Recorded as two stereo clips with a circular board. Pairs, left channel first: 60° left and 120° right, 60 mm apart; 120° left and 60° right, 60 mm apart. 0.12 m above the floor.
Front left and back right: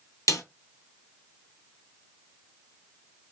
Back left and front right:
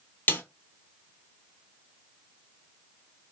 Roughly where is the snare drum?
Left.